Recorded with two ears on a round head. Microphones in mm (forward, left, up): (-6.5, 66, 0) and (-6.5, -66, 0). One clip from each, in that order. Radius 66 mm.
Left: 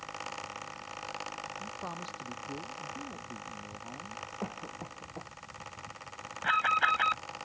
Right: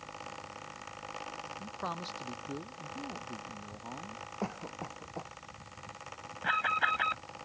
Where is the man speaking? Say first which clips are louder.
Right 1 dB; 35° right (ahead or behind); by 4.2 s 40° right (ahead or behind).